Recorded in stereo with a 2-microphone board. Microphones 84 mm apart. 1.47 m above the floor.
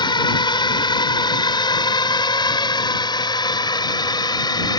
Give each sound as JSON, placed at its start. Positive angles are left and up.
{"t": 0.0, "sound": "a drone", "side_deg": 65}